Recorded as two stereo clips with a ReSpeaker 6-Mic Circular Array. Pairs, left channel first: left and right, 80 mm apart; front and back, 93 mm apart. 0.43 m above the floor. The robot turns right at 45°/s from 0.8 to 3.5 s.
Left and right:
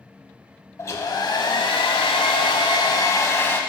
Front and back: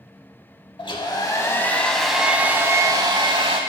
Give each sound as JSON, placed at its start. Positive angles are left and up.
{"t": 0.8, "sound": "a hair dryer", "azimuth_deg": 30, "distance_m": 0.7}